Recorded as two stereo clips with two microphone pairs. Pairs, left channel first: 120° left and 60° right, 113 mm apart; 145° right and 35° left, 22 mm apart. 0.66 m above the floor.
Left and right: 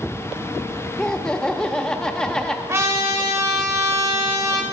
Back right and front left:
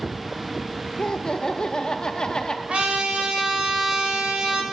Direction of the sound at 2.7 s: 5° left.